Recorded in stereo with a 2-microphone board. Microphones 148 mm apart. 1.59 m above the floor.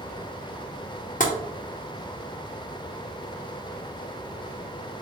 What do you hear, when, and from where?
1.2 s tapping: 60° left (ahead or behind), 0.8 m